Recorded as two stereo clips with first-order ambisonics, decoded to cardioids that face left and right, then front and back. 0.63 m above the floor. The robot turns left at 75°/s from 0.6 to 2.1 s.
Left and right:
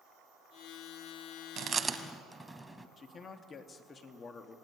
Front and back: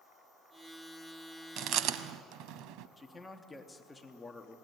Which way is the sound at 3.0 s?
65° left.